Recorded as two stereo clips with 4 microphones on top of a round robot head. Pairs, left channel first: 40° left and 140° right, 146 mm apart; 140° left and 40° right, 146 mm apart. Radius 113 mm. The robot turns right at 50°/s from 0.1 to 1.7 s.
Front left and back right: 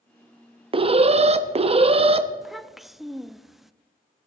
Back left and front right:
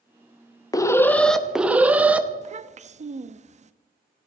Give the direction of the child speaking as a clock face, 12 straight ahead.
2 o'clock.